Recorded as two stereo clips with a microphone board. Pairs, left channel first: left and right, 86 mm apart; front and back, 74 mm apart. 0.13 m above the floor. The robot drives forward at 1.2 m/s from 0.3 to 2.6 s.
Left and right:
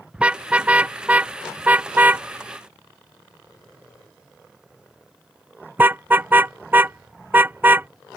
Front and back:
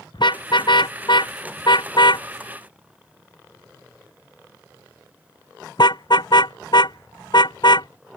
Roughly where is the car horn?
Ahead.